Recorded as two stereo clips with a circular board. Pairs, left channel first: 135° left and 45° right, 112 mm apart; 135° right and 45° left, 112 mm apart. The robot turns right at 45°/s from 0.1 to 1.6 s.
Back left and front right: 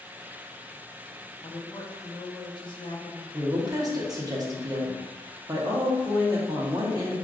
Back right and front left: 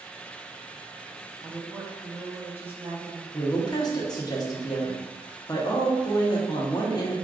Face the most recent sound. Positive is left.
turn(degrees=-90)